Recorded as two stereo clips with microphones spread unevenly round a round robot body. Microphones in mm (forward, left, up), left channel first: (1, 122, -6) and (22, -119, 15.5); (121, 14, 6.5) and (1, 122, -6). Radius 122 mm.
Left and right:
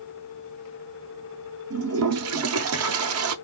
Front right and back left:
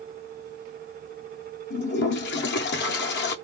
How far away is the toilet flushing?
About 0.6 m.